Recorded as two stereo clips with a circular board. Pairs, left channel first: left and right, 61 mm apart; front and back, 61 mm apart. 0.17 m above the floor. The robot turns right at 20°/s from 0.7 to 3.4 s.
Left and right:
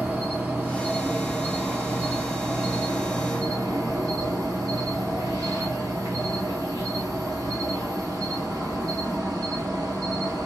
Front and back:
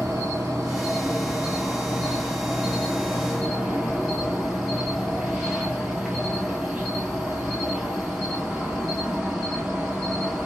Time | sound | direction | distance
0.0 | an insect | 155° right | 1.3 m